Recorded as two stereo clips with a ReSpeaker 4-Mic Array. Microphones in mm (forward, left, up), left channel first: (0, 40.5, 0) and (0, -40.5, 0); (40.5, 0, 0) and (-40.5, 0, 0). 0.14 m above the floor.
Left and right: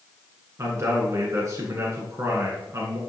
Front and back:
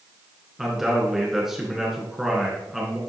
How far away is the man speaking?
About 1.3 m.